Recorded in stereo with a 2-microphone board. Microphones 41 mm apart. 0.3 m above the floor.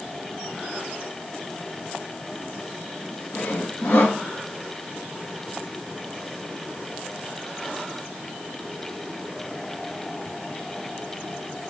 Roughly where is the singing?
I don't hear singing.